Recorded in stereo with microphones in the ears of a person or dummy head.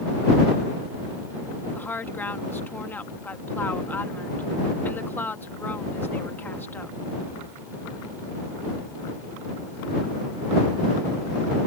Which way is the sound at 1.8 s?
5° left (ahead or behind).